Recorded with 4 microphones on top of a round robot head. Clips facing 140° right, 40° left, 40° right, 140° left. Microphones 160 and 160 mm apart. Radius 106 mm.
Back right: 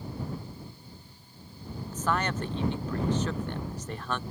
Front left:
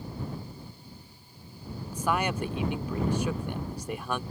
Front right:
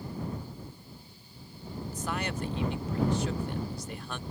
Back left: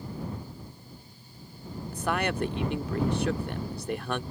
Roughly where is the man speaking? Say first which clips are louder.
Front left 1 dB, back left 6 dB; behind left.